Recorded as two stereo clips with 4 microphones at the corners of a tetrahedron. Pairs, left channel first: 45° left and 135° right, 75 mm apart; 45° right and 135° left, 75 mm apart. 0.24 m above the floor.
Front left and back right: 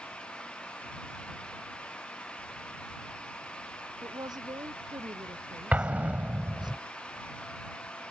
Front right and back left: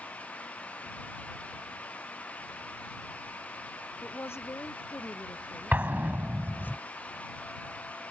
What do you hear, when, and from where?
4.0 s a woman speaking: 105° right; by 6.7 s 110° right
5.7 s an explosion: 175° left